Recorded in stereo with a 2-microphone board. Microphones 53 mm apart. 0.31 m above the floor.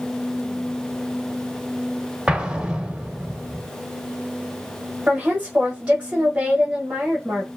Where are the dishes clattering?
I don't hear dishes clattering.